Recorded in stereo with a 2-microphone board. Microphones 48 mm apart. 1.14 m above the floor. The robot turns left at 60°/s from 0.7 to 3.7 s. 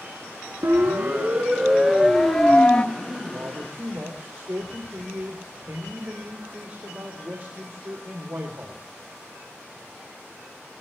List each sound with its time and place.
0.6 s a siren: 75° right (ahead or behind), 2.5 m; by 2.9 s 15° left (ahead or behind), 1.0 m
3.0 s a man speaking: 60° right, 3 m; by 8.8 s 105° right, 3 m